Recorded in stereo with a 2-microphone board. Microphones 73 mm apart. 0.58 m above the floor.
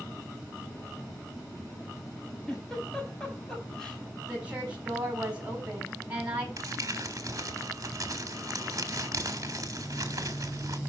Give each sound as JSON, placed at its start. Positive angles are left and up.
{"t": 2.5, "sound": "a giggle", "side_deg": 5, "distance_m": 4.5}
{"t": 4.3, "sound": "a woman speaking", "side_deg": -15, "distance_m": 5.5}
{"t": 6.6, "sound": "crumpling", "side_deg": -45, "distance_m": 1.6}